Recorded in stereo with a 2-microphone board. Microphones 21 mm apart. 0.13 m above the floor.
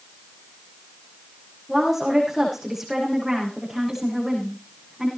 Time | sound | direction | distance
1.7 | a woman speaking | 10° right (ahead or behind) | 7.5 m